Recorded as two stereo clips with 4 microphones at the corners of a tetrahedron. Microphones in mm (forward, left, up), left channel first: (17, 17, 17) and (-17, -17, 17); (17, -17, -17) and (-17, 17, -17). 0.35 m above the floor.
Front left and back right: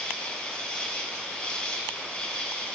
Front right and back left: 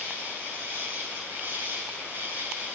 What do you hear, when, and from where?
0.0 s an insect: 110° left, 2.5 m